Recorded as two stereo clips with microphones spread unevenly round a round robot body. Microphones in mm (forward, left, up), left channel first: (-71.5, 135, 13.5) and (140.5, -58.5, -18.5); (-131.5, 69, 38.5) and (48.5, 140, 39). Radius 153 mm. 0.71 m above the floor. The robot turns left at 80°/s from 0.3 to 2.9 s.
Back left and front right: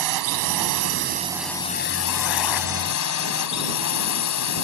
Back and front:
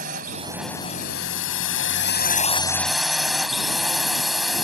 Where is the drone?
40° right; by 4.7 s 110° left.